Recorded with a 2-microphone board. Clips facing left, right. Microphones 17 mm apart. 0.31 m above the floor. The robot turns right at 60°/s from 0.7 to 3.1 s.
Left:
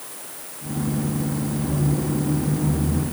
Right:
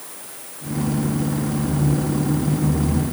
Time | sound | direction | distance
1.6 | a squeak | 90° left | 7 m